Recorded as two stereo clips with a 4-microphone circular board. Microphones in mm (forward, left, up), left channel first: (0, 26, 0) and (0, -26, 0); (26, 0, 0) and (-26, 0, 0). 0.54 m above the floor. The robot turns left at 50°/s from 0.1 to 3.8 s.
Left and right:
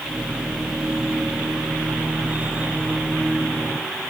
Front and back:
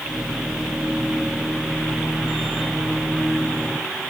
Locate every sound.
Only background noise.